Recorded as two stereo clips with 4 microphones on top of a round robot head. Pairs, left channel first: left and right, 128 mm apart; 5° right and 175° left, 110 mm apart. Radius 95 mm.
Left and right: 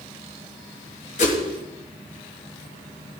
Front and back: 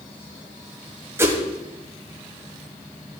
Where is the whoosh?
110° left, 1.8 m.